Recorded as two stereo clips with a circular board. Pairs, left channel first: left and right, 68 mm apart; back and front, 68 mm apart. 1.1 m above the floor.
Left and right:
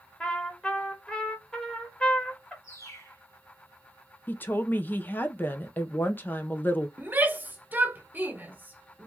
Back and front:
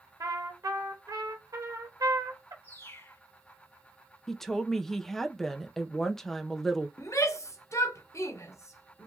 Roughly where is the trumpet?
Ahead.